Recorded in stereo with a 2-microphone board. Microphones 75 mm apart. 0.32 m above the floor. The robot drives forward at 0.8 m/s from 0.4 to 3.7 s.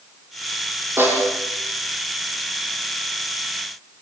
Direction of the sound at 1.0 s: 35° right (ahead or behind).